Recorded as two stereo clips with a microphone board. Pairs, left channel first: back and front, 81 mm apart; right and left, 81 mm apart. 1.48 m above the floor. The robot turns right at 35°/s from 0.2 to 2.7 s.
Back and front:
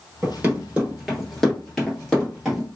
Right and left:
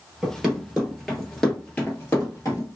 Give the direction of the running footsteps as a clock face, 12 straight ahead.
12 o'clock.